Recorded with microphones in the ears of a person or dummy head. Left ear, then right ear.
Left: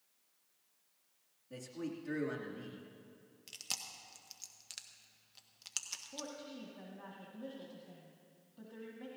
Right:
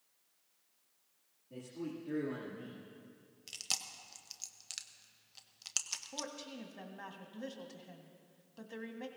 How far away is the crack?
I don't hear a crack.